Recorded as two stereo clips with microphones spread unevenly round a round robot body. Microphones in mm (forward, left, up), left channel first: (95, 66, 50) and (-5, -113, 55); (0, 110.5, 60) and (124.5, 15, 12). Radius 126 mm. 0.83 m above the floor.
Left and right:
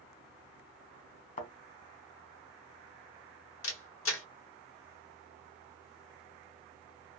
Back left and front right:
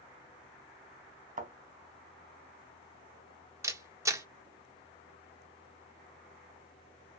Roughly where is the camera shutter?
Ahead left.